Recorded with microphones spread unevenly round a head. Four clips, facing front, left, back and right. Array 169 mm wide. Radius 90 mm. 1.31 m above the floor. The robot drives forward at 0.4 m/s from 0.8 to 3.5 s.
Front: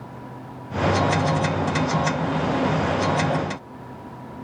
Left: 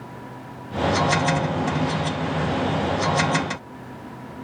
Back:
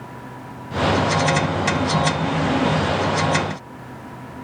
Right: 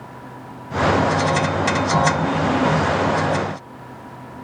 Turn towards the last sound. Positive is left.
No sound to turn to.